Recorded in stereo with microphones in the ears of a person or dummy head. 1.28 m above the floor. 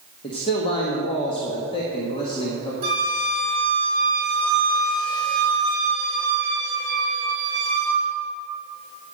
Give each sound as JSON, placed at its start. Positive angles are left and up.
{"t": 0.2, "sound": "a man speaking", "side_deg": 35, "distance_m": 1.6}
{"t": 2.8, "sound": "a flute", "side_deg": -30, "distance_m": 4.5}